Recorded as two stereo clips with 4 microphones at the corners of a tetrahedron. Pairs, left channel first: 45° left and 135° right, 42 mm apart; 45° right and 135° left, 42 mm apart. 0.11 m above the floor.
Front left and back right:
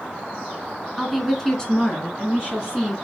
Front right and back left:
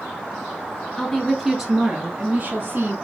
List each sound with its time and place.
1.0 s a woman speaking: 50° right, 1.2 m; by 2.9 s 100° left, 1.8 m